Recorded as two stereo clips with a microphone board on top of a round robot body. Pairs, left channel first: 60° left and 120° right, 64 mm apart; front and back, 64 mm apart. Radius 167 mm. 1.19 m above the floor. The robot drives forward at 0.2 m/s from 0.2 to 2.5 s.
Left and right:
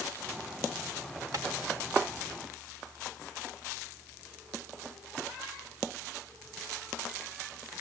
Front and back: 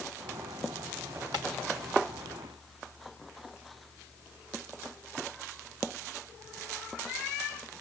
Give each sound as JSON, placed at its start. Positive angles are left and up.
{"t": 1.3, "sound": "tapping", "azimuth_deg": -165, "distance_m": 2.0}